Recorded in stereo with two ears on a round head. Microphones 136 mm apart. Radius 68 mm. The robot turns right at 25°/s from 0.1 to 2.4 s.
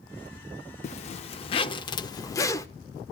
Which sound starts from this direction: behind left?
A zipper, at 0.8 s.